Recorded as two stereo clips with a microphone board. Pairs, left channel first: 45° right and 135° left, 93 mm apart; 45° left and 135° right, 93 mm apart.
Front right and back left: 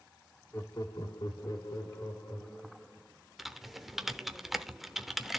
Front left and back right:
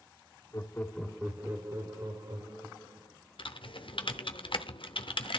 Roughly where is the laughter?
Ahead.